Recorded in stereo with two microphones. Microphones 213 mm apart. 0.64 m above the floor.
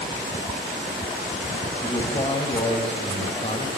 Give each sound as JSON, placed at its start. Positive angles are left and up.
{"t": 1.8, "sound": "a man speaking", "side_deg": 25, "distance_m": 3.0}